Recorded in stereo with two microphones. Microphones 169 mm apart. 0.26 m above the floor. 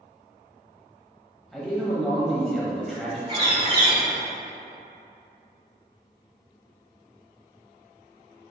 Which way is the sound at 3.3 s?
35° right (ahead or behind).